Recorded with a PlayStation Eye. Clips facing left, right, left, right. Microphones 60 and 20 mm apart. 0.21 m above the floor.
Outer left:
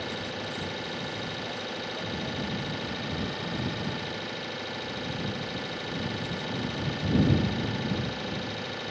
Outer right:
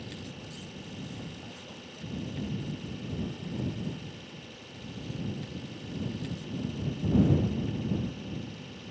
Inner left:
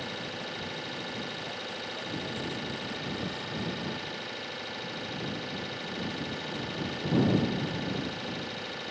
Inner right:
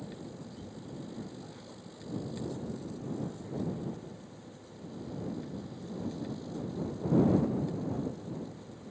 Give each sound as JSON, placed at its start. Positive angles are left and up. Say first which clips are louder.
{"t": 0.0, "sound": "an engine running", "louder": "outer left 9 dB, inner left 8 dB", "side_deg": 85}